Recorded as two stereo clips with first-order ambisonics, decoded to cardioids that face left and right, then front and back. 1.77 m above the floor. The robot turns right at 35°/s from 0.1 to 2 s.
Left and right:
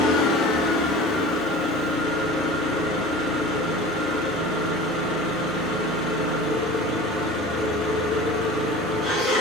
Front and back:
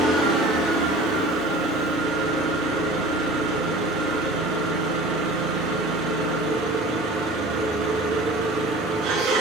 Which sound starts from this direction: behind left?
An engine running, at 0.0 s.